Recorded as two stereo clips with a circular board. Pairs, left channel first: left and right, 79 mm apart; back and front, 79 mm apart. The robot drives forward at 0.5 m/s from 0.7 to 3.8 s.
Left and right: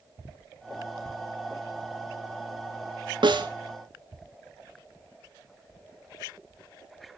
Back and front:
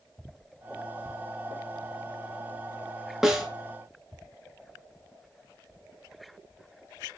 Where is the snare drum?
85° right, 2.5 m; by 3.5 s 90° right, 2.5 m.